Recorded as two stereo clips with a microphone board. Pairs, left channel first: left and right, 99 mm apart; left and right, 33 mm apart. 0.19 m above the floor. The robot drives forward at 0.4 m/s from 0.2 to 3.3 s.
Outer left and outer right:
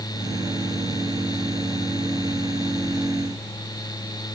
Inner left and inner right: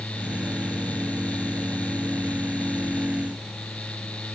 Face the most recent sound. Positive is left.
No sound to turn to.